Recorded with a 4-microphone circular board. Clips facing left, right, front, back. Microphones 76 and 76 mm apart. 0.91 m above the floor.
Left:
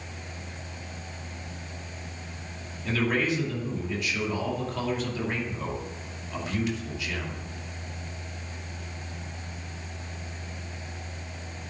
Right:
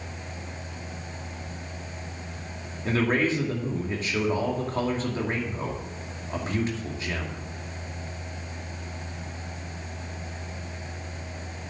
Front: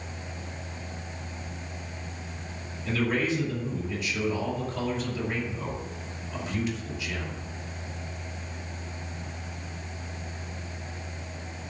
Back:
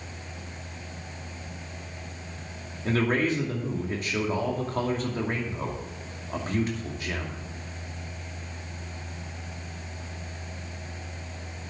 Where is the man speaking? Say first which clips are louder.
Right 2 dB, back 2 dB; 140° right, 2.5 m.